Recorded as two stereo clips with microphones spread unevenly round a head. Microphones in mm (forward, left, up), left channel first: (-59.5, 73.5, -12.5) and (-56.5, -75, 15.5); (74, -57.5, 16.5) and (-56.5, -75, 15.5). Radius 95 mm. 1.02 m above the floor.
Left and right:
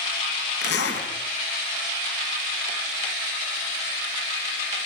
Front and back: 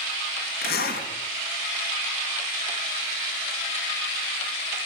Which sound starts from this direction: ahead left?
A zipper, at 0.6 s.